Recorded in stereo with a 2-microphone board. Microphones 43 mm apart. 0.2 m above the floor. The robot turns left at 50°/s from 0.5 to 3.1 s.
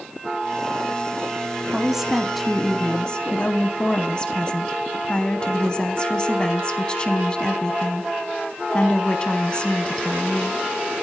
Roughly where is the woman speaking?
Behind right.